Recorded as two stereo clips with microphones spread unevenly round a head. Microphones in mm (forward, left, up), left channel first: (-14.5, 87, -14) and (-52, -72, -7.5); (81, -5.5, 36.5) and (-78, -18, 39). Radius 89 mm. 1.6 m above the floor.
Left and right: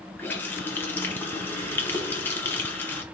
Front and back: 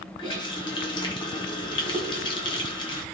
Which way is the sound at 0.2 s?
10° left.